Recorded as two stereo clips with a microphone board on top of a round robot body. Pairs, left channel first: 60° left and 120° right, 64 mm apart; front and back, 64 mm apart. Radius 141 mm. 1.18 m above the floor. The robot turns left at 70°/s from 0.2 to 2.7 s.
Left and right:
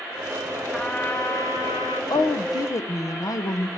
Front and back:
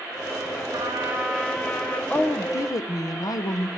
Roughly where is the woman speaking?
Left.